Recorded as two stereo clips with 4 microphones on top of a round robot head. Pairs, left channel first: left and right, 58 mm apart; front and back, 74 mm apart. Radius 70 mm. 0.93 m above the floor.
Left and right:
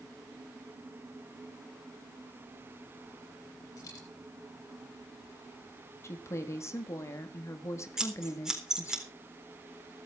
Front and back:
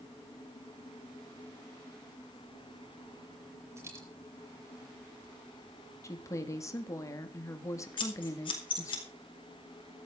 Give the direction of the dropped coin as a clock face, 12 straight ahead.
8 o'clock.